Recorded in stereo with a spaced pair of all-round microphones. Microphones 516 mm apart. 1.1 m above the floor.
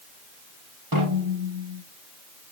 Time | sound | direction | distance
0.9 | a snare drum | 45° right (ahead or behind) | 10 m